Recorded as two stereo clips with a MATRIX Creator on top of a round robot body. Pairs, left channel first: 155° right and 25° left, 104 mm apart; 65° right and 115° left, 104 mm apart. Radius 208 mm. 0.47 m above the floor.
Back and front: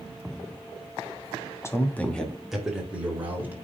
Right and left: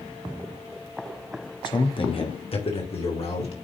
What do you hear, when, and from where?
1.6 s a man speaking: 100° right, 2.5 m; by 3.5 s 45° right, 4 m